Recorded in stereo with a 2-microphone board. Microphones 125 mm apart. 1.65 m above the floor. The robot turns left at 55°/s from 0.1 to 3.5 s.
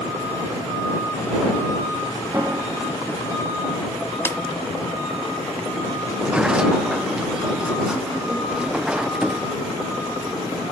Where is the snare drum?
20° left (ahead or behind).